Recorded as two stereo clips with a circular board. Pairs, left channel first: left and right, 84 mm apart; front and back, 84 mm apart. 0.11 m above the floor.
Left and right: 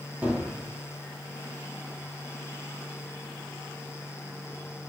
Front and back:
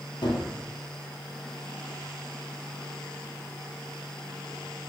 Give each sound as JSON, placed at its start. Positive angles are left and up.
{"t": 0.2, "sound": "a gunshot", "azimuth_deg": -15, "distance_m": 1.2}